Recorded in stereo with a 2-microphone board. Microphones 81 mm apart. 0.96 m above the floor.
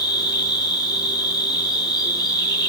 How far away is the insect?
About 5.5 m.